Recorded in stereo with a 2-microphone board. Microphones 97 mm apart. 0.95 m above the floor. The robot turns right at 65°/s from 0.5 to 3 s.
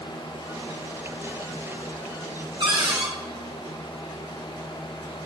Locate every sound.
2.6 s a cupboard door: 65° right (ahead or behind), 1.1 m; by 3.1 s 45° right (ahead or behind), 1.1 m